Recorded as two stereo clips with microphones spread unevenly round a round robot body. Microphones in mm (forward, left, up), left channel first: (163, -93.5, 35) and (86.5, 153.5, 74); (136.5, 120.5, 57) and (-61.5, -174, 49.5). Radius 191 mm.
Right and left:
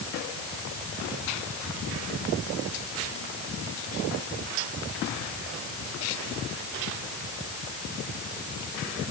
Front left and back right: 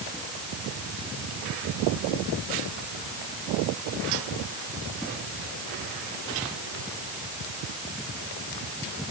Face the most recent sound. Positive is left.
No sound to turn to.